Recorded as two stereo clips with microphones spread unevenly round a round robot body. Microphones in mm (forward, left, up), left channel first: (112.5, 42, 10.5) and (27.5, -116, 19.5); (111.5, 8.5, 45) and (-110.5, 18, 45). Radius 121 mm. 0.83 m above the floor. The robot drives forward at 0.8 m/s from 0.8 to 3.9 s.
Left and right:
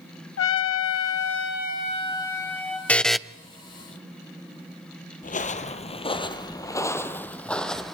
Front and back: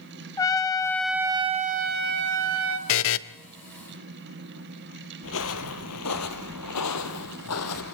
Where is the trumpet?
75° left, 0.9 m; by 2.8 s 150° left, 1.6 m.